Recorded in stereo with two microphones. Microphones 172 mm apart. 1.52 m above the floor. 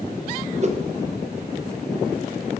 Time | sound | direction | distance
0.6 | a whoosh | 45° right (ahead or behind) | 0.7 m